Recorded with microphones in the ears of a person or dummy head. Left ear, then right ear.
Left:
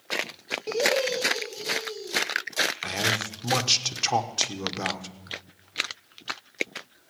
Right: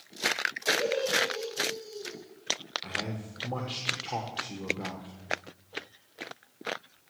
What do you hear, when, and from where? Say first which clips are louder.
0.7 s laughter: left 4 dB; 40° left (ahead or behind), 2.0 m; by 2.2 s 45° left (ahead or behind), 2.5 m
2.8 s a man speaking: left 9 dB; 75° left (ahead or behind), 1.1 m